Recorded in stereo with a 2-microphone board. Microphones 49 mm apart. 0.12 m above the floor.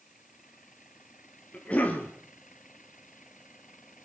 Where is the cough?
30° left (ahead or behind), 2.5 m.